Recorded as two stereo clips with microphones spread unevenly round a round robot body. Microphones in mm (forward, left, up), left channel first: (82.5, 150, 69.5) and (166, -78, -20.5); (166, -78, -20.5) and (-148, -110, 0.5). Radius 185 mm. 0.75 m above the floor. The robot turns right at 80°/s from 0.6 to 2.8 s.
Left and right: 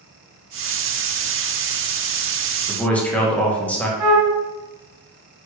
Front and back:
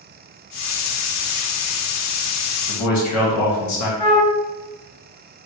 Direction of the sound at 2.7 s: Straight ahead.